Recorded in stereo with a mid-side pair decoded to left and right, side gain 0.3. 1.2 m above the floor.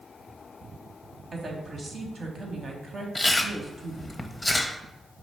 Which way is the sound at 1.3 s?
55° right.